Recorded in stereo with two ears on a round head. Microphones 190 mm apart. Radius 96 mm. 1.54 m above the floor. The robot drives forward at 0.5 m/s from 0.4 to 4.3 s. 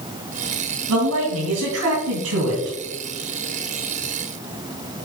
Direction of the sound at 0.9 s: 80° right.